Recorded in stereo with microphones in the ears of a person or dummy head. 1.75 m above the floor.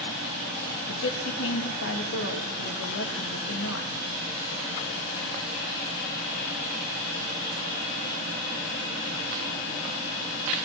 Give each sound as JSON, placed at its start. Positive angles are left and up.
{"t": 0.9, "sound": "a woman speaking", "side_deg": 75, "distance_m": 3.0}